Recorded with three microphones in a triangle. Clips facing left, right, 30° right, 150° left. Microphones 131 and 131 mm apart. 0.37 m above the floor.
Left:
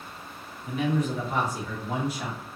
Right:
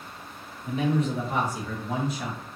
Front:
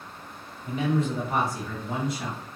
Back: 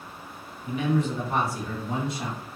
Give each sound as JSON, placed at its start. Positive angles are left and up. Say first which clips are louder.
{"t": 0.7, "sound": "a man speaking", "louder": "right 1 dB, even", "azimuth_deg": -55, "distance_m": 1.2}